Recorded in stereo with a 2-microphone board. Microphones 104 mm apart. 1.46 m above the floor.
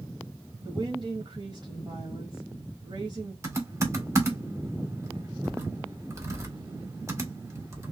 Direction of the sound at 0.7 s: 55° right (ahead or behind).